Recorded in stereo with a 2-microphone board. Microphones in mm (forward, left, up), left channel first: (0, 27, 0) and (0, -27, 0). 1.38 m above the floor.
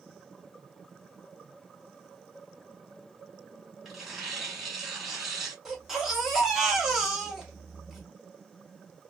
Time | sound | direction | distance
3.9 | tearing paper | 10° right (ahead or behind) | 2 m
5.7 | a baby crying | 10° right (ahead or behind) | 1.3 m